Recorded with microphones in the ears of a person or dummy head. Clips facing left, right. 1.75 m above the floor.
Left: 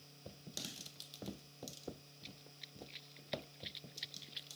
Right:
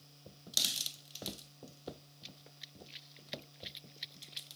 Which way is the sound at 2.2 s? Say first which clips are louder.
Left 1 dB; 10° right (ahead or behind).